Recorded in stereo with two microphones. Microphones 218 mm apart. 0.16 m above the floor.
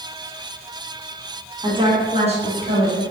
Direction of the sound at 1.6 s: 25° right (ahead or behind).